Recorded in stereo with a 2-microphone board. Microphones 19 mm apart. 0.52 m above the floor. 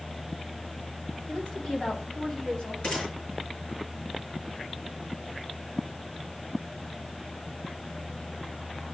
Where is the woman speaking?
75° left (ahead or behind), 3.5 m; by 2.7 s 60° left (ahead or behind), 4.5 m.